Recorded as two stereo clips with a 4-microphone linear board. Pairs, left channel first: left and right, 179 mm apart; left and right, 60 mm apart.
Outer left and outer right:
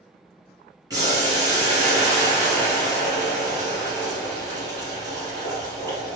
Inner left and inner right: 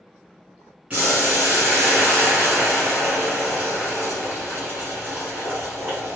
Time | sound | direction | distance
0.9 | boiling | 20° right (ahead or behind) | 1.5 m